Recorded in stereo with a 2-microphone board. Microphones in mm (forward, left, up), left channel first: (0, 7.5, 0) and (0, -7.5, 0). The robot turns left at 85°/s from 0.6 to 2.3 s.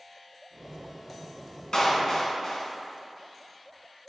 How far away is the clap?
About 2.5 m.